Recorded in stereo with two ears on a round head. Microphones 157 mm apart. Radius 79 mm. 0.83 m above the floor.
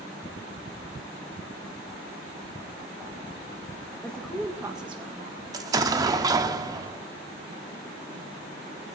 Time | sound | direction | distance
4.0 | a woman speaking | 10° left (ahead or behind) | 1.1 m
5.5 | an explosion | 20° right (ahead or behind) | 0.6 m